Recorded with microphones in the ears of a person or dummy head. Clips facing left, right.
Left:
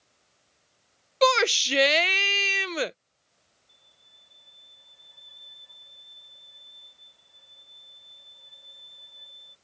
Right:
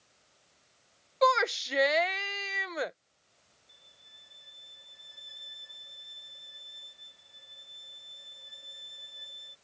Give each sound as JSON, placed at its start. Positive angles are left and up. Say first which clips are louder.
{"t": 1.2, "sound": "a shout", "louder": "left 5 dB", "side_deg": 40}
{"t": 3.7, "sound": "a violin", "louder": "right 3 dB", "side_deg": -20}